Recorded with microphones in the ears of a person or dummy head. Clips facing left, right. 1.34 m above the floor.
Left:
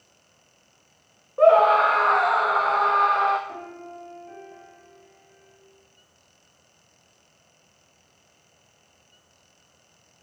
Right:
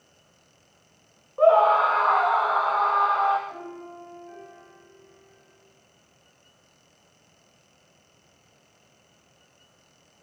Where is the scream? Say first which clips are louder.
Left 2 dB; 25° left (ahead or behind), 0.6 m.